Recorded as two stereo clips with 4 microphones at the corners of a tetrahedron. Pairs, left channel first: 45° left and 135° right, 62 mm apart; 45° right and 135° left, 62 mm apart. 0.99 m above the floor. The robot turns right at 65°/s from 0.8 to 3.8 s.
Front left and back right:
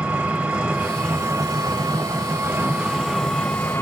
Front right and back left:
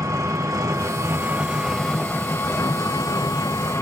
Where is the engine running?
160° left, 1.0 m; by 3.8 s 5° right, 1.0 m.